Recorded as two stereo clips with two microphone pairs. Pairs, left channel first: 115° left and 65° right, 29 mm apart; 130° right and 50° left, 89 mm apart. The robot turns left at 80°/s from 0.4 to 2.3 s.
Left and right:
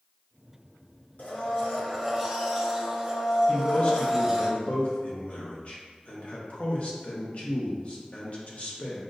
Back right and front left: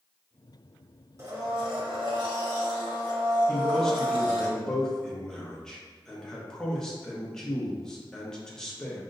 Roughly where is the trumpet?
I don't hear a trumpet.